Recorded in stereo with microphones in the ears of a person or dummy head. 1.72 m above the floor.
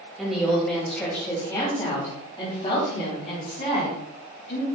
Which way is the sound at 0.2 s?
5° right (ahead or behind).